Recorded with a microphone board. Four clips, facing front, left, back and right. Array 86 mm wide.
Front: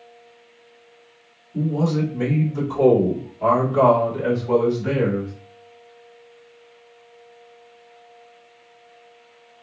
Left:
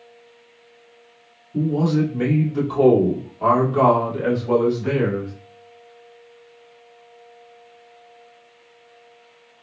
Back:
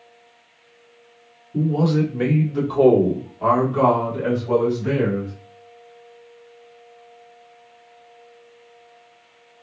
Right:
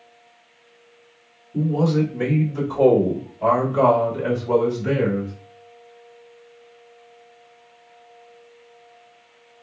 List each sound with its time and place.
1.5 s a man speaking: 170° left, 1.5 m; by 5.3 s 80° left, 2 m